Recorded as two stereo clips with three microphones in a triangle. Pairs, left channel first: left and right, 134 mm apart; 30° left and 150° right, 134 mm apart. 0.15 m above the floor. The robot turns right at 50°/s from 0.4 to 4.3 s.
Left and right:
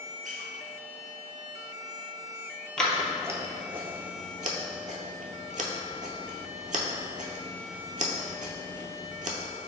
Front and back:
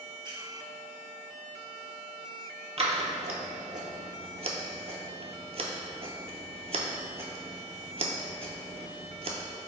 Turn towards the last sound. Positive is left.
turn(degrees=-110)